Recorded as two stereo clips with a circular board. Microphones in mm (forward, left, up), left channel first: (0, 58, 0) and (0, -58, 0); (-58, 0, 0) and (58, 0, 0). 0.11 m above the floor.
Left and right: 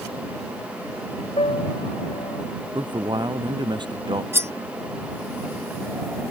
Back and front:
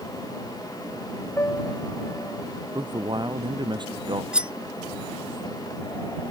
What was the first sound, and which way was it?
A piano, 115° left.